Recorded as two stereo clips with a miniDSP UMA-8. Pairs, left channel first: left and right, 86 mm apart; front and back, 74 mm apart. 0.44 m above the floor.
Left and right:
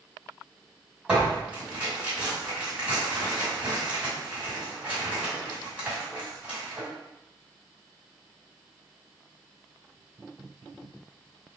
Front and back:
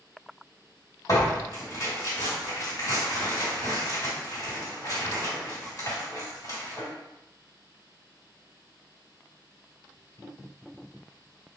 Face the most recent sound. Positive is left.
turn(degrees=-20)